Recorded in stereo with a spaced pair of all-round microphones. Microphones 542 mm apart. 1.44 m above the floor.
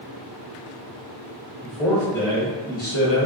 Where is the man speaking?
Centre (ahead or behind), 1.8 m; by 3.3 s 30° left (ahead or behind), 1.0 m.